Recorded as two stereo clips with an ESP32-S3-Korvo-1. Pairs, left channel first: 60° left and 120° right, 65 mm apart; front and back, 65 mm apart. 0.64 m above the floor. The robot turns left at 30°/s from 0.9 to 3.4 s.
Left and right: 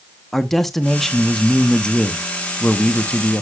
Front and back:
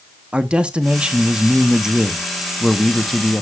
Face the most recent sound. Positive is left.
turn(degrees=65)